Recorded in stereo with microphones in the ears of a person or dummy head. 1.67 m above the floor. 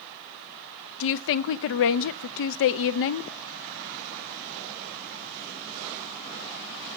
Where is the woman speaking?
70° left (ahead or behind), 0.5 m.